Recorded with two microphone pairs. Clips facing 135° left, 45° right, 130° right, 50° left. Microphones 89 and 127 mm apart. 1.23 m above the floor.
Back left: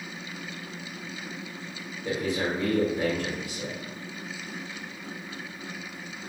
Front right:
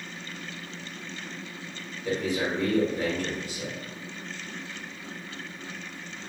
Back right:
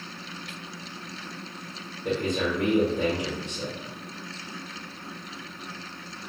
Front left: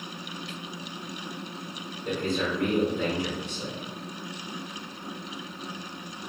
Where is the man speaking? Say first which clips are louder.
Even, back right 2 dB; 145° right, 1.0 m.